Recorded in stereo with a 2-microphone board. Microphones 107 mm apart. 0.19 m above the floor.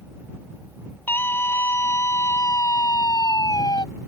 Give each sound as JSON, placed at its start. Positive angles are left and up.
{"t": 1.1, "sound": "a scream", "side_deg": 20}